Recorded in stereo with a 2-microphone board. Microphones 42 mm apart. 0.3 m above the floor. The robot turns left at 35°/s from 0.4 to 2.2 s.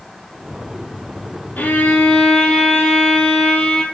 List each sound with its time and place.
1.6 s a violin: 50° left (ahead or behind), 5.5 m; by 3.8 s 25° left (ahead or behind), 5.5 m